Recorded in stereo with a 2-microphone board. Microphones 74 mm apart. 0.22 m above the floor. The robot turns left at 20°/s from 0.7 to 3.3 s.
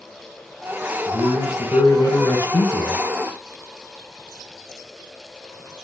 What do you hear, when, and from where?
1.1 s a man speaking: 85° left, 3.5 m; by 3.0 s 50° left, 3.5 m